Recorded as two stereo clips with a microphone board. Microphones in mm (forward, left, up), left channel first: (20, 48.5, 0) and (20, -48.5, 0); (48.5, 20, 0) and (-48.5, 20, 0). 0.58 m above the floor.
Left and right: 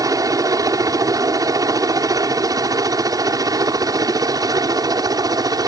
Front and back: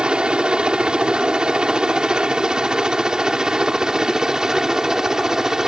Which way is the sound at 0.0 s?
105° right.